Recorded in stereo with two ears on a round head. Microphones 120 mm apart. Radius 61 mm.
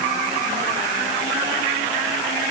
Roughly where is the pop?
I don't hear a pop.